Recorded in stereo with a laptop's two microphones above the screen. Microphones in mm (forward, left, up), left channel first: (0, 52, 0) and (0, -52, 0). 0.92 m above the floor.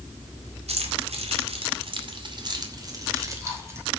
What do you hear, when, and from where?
0.7 s keys jangling: 80° right, 2 m; by 3.9 s 25° right (ahead or behind), 3.5 m